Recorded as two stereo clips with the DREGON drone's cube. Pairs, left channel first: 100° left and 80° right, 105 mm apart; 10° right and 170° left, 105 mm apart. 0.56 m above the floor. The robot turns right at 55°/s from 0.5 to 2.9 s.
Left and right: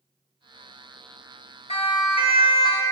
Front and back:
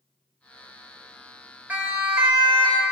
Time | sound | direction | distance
1.7 | a siren | 95° left | 3 m